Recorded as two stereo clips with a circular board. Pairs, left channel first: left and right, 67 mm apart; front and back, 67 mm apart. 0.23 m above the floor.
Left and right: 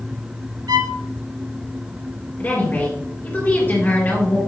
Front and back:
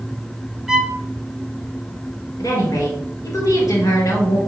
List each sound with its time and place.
0.7 s a violin: 100° right, 0.6 m
2.4 s a woman speaking: 30° left, 3 m